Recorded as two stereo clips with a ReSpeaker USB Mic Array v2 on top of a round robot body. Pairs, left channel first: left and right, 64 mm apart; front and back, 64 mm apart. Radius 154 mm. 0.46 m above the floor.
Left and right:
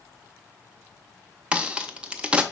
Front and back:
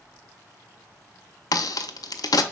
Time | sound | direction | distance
1.5 | a crack | 15° right | 0.5 m